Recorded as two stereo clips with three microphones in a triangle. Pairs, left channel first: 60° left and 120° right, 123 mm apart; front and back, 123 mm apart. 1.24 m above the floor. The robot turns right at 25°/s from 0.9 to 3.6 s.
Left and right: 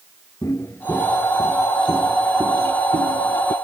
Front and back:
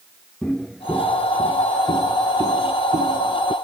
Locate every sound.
0.4 s footsteps: 70° left; by 3.5 s 135° right